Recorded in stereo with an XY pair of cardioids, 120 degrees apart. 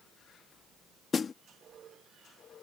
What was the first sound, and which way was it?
A snare drum, 35° left.